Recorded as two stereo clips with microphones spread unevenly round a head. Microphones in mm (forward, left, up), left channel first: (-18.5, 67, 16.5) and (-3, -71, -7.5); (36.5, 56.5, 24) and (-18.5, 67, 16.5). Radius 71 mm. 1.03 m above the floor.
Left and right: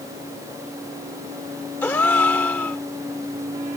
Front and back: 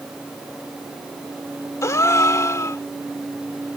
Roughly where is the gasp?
Ahead.